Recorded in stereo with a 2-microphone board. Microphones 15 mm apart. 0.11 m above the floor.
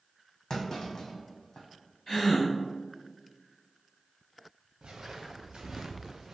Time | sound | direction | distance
0.5 | a clunk | 40° left (ahead or behind) | 1.4 m
2.1 | a gasp | 25° left (ahead or behind) | 1.9 m
4.8 | footsteps | 85° right | 1.1 m